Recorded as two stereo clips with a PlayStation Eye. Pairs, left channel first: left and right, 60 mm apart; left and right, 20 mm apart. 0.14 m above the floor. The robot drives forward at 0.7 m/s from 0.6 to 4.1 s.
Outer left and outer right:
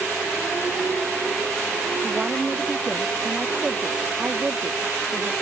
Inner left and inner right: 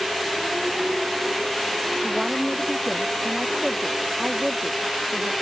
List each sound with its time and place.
2.0 s a woman speaking: 20° right (ahead or behind)